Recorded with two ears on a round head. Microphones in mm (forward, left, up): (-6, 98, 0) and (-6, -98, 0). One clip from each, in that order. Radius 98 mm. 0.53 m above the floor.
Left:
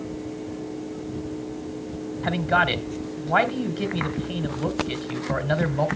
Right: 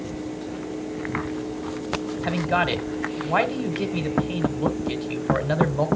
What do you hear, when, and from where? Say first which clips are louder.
2.2 s a man speaking: left 2 dB; 5° right (ahead or behind), 1.5 m